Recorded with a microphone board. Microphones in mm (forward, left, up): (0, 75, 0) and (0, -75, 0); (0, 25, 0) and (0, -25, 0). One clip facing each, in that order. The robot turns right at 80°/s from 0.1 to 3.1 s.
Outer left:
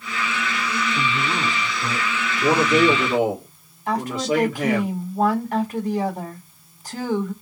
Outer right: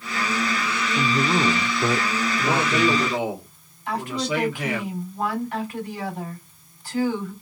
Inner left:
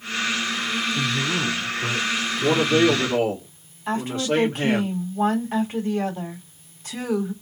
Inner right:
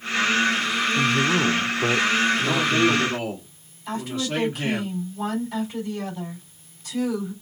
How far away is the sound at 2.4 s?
About 2.5 m.